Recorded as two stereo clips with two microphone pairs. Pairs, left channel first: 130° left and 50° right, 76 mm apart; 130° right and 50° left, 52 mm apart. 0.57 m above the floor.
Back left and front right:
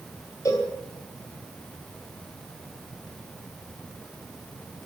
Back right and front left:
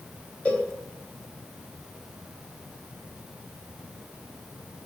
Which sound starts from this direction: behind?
A cowbell, at 0.5 s.